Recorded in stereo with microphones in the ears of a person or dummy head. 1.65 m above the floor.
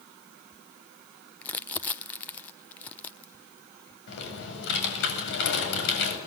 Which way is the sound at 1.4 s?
10° left (ahead or behind).